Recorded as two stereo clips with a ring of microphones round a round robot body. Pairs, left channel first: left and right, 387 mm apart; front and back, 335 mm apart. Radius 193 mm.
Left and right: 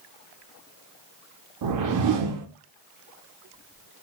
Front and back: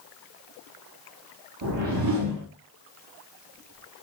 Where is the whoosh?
135° right, 0.5 m.